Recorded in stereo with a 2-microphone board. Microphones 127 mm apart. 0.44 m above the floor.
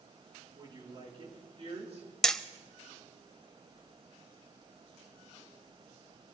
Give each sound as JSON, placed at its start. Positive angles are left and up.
{"t": 0.6, "sound": "a woman speaking", "side_deg": -35, "distance_m": 5.0}
{"t": 2.2, "sound": "hammering", "side_deg": 5, "distance_m": 0.8}